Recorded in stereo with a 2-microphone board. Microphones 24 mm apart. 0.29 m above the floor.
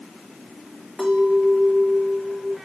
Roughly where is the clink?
Centre.